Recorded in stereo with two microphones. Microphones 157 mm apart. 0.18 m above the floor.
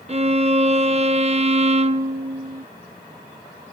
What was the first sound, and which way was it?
A violin, 40° right (ahead or behind).